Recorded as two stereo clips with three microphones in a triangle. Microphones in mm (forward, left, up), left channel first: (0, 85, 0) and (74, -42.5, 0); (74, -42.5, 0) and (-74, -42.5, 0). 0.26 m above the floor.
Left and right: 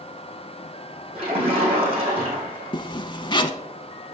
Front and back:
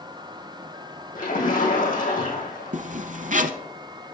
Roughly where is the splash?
Ahead.